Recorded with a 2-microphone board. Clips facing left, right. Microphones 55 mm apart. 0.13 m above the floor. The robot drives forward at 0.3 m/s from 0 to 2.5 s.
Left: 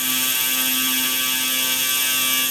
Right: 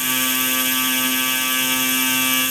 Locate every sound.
Only background noise.